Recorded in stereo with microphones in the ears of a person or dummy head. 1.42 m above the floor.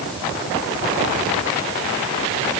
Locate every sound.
Only background noise.